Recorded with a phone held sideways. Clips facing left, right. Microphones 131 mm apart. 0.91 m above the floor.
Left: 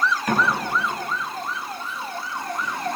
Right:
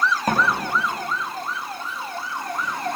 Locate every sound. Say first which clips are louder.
0.3 s a door slam: even; 40° right (ahead or behind), 5 m